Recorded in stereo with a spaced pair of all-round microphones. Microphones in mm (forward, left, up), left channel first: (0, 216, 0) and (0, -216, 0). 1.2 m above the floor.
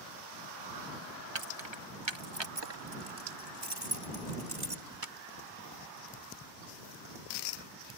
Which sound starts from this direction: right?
Keys jangling, at 1.4 s.